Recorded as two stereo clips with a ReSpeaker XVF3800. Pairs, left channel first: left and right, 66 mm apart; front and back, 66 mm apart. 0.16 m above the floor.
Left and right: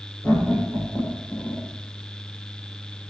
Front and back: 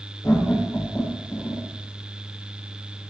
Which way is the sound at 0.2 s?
35° left.